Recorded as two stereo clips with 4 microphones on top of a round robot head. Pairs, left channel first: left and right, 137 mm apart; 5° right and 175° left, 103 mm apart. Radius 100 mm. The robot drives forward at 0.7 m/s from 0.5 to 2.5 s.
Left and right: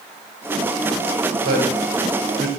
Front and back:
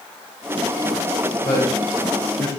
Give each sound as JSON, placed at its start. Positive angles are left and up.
{"t": 1.4, "sound": "a man speaking", "azimuth_deg": -70, "distance_m": 3.0}